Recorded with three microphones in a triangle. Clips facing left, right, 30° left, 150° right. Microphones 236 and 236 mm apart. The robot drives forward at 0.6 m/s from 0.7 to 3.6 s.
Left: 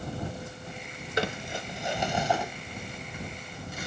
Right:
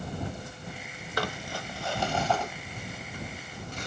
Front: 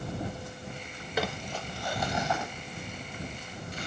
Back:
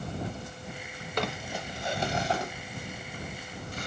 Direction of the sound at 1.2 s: 100° left.